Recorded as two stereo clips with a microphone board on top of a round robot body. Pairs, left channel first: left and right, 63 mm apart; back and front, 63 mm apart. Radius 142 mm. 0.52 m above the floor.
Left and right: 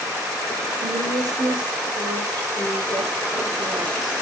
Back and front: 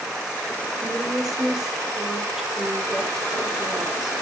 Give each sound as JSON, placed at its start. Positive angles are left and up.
{"t": 0.8, "sound": "a woman speaking", "azimuth_deg": -90, "distance_m": 3.0}